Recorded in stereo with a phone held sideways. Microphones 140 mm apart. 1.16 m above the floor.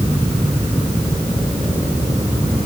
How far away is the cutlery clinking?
I don't hear cutlery clinking.